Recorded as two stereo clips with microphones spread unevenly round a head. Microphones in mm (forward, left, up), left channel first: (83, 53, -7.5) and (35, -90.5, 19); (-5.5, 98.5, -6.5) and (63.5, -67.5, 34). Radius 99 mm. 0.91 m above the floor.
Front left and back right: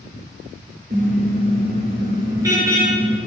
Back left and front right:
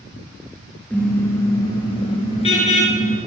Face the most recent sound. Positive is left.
turn(degrees=170)